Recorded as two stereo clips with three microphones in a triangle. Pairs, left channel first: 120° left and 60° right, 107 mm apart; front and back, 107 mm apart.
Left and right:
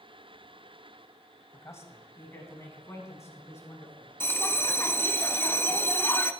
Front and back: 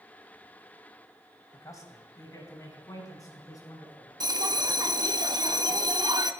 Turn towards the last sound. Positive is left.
turn(degrees=175)